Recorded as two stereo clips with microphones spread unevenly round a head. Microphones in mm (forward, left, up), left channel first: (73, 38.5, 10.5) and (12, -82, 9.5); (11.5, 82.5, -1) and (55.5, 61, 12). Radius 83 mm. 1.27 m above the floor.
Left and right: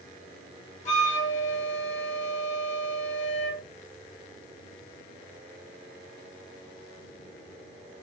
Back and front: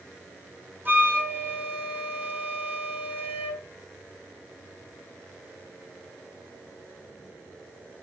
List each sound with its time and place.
0.8 s a flute: 30° left, 0.9 m